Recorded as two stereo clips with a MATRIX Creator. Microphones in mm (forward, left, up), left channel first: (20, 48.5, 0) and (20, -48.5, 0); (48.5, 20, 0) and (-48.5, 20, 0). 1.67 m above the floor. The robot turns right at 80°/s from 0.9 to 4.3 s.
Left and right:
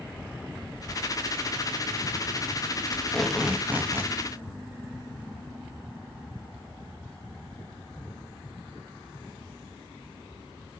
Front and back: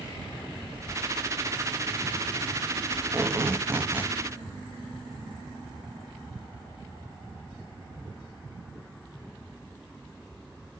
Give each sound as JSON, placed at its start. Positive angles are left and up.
{"t": 2.9, "sound": "tape being pulled", "azimuth_deg": 150, "distance_m": 1.0}